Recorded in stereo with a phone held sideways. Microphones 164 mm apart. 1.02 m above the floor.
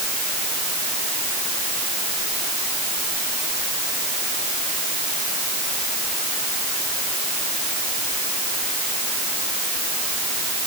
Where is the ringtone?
I don't hear a ringtone.